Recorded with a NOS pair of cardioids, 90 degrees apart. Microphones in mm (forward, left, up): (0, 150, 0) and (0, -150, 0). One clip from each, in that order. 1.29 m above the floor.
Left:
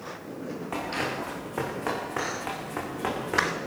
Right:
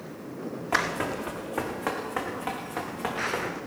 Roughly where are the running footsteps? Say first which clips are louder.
Right 4 dB; ahead.